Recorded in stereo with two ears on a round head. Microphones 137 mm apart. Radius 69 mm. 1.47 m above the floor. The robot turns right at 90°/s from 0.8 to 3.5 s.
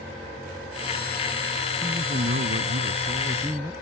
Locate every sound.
1.8 s a man speaking: 165° right; by 3.7 s 10° right